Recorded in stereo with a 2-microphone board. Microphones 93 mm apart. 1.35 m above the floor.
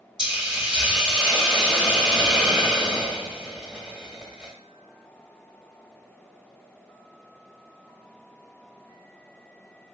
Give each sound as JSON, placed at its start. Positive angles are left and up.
{"t": 0.2, "sound": "a hiss", "side_deg": -5, "distance_m": 2.5}